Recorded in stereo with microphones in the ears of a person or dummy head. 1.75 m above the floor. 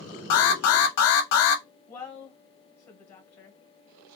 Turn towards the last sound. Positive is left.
turn(degrees=15)  # may be behind; listen again after turning